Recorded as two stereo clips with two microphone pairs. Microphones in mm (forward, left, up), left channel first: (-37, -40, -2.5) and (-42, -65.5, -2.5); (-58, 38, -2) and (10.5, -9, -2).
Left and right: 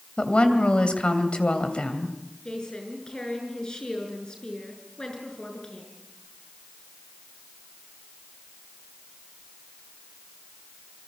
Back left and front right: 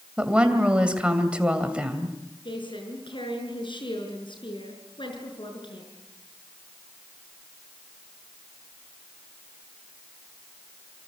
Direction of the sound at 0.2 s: 40° left.